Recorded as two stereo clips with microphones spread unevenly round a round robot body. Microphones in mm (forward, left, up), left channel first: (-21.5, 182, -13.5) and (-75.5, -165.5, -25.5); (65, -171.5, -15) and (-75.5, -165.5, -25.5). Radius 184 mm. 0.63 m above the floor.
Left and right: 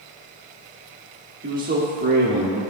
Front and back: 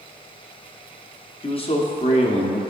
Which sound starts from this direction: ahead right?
A man speaking, at 1.4 s.